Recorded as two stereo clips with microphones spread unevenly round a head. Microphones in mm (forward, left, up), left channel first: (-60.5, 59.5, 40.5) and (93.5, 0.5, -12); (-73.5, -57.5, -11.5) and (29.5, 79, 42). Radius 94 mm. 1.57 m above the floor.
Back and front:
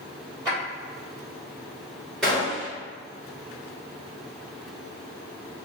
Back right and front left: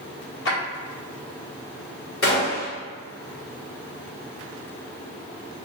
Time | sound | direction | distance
0.5 | a drawer | 105° right | 1.5 m
2.2 | a gunshot | 130° right | 1.8 m